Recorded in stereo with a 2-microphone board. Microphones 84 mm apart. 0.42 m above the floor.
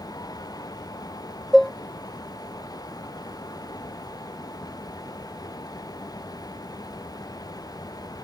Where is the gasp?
No gasp in this recording.